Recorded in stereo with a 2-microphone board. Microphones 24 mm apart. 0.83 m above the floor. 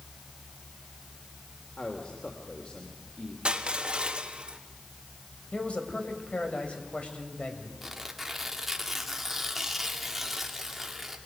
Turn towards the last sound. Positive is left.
turn(degrees=-5)  # may be behind; listen again after turning